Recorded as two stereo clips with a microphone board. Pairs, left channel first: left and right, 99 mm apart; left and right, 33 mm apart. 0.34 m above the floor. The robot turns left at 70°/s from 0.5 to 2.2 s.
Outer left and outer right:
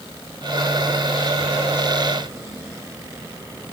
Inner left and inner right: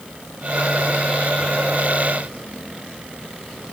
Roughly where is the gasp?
No gasp in this recording.